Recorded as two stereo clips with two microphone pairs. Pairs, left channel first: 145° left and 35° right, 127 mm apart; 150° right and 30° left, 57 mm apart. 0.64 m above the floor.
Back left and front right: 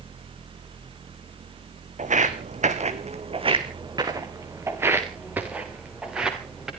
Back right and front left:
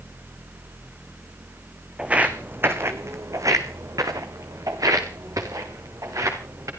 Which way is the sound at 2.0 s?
40° right.